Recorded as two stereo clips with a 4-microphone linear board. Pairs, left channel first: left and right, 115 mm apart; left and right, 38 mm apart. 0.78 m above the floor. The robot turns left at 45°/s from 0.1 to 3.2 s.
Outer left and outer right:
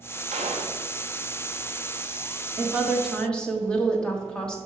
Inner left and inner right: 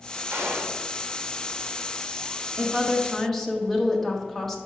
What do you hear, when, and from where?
0.3 s a gunshot: 80° right, 1.0 m; by 0.8 s 70° right (ahead or behind), 1.0 m
2.6 s a woman speaking: 20° right (ahead or behind), 1.1 m; by 4.6 s 10° left (ahead or behind), 1.1 m